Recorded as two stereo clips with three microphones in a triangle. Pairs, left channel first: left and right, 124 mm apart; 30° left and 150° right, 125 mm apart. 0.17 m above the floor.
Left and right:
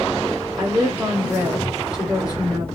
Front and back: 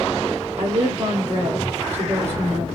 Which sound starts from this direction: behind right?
A woman speaking, at 0.6 s.